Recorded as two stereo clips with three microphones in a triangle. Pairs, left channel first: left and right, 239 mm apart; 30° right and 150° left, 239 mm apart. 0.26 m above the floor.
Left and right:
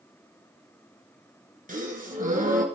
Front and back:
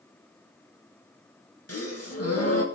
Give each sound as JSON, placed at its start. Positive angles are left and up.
{"t": 1.7, "sound": "a gasp", "azimuth_deg": -35, "distance_m": 2.5}